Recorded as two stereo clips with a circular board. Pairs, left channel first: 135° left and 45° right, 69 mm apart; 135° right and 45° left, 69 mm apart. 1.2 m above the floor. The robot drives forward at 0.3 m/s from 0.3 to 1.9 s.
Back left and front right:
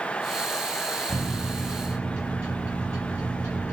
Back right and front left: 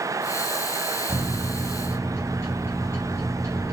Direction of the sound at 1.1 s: 80° right.